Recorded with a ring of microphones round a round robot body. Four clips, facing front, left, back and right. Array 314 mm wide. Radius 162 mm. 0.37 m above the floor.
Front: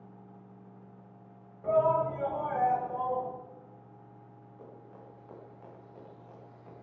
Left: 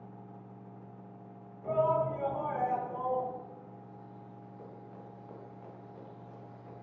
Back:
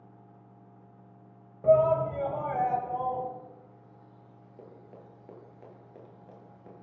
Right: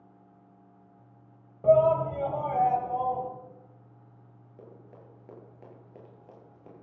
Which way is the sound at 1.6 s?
125° right.